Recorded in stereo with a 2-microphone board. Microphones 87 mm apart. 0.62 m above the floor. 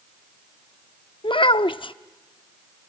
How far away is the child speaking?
About 0.5 m.